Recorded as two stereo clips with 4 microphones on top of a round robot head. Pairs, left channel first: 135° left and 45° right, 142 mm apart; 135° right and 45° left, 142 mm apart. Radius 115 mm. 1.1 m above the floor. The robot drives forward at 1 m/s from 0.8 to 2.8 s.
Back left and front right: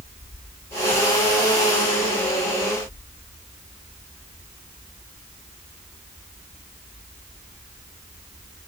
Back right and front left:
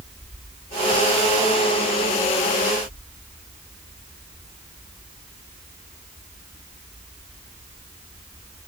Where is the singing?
No singing in this recording.